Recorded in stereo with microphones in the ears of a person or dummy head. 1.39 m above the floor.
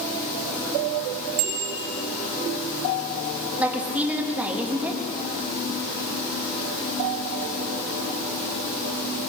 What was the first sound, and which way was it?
A bicycle bell, 45° right (ahead or behind).